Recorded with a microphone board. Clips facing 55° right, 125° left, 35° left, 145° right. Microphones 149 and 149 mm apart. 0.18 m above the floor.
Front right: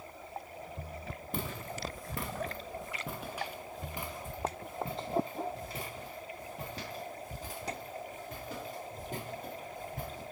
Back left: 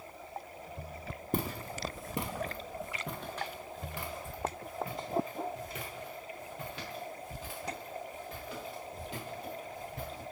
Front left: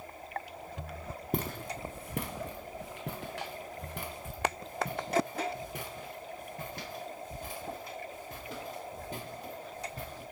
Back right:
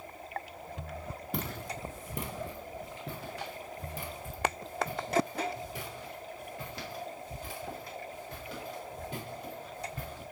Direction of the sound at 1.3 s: 75° left.